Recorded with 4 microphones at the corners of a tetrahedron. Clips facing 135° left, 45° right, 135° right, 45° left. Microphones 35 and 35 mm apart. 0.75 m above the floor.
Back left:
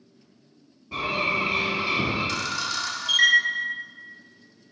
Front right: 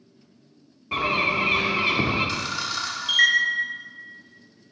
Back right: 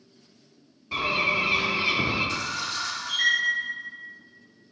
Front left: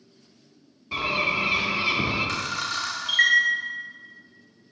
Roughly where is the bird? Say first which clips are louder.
Front right 3 dB, even; ahead right.